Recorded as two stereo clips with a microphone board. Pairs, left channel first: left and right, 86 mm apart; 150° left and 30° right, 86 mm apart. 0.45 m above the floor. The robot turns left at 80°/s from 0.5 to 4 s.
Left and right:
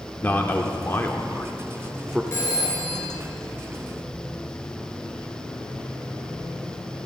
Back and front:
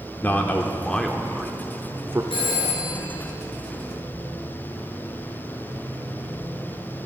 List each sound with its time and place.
0.2 s a man speaking: 120° left, 0.8 m; by 2.2 s 15° right, 0.8 m
2.3 s a phone ringing: 150° left, 4.5 m; by 3.0 s 90° left, 4.5 m